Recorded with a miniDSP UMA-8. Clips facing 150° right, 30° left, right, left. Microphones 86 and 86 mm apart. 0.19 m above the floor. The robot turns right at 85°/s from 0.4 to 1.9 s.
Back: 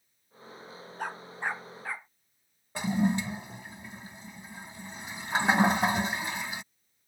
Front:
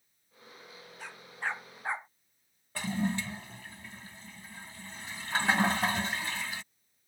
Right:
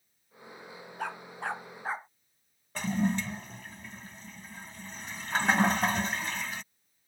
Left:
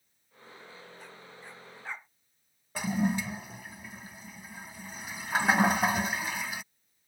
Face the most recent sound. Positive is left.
turn(degrees=160)